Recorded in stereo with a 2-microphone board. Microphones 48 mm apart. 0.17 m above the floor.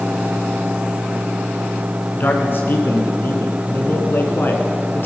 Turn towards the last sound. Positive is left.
turn(degrees=50)  # may be behind; listen again after turning